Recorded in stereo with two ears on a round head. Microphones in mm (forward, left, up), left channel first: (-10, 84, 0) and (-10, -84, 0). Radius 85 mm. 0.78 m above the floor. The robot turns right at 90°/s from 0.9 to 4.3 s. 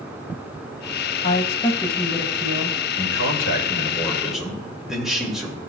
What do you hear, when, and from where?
1.2 s a woman speaking: 105° left, 0.8 m; by 2.8 s 115° right, 0.8 m
3.0 s a man speaking: 60° left, 2.5 m; by 5.6 s 175° right, 2.5 m